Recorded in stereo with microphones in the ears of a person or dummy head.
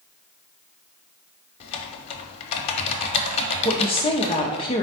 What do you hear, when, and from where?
1.6 s typing on a keyboard: 35° left (ahead or behind), 0.7 m
3.6 s a woman speaking: 30° left (ahead or behind), 0.7 m